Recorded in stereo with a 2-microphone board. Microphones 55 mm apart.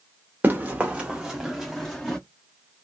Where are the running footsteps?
30° right (ahead or behind), 1.3 m; by 2.2 s 15° left (ahead or behind), 1.6 m.